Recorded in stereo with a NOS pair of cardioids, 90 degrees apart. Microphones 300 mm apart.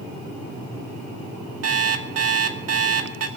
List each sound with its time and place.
1.6 s an alarm clock: 50° right, 2 m